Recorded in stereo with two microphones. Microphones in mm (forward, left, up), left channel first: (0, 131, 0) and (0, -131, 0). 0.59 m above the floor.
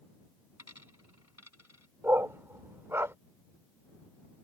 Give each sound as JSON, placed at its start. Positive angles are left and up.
{"t": 0.6, "sound": "a dropped coin", "side_deg": 75}
{"t": 2.0, "sound": "a dog barking", "side_deg": -10}